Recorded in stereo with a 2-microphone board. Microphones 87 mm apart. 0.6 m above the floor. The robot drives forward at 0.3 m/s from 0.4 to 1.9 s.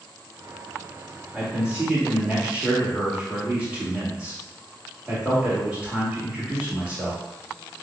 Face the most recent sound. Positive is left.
turn(degrees=-10)  # may be behind; listen again after turning